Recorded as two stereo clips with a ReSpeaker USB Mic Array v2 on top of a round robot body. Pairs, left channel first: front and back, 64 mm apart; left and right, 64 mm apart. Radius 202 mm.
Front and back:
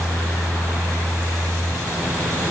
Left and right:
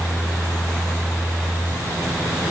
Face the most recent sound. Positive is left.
No sound to turn to.